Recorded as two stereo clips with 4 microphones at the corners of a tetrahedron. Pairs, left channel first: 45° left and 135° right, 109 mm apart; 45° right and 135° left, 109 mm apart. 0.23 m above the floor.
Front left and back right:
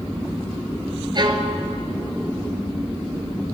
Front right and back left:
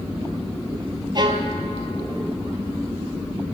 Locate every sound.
1.1 s a violin: straight behind, 0.8 m